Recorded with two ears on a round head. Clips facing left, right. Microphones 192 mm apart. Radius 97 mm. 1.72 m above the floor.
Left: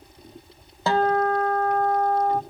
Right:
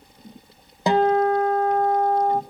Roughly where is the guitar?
Centre.